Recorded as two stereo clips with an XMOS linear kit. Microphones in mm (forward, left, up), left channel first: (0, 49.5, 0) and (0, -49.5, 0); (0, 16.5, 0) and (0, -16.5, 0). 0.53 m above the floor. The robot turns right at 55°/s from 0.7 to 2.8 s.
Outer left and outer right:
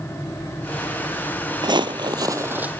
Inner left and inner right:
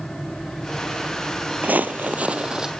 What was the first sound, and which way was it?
Footsteps, 50° right (ahead or behind).